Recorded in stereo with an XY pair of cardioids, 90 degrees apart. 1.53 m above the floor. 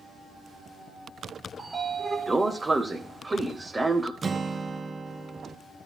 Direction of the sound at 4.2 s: 30° right.